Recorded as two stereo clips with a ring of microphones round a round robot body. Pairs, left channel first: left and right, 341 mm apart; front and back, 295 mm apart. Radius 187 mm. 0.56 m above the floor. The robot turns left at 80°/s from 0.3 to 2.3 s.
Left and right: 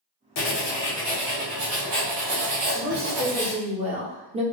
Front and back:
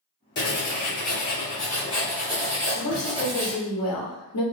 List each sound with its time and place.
0.4 s writing: 50° left, 1.5 m; by 3.6 s 105° right, 1.5 m
2.8 s a woman speaking: 20° right, 1.2 m